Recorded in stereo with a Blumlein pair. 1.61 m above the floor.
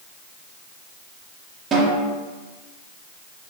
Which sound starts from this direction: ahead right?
A snare drum, at 1.7 s.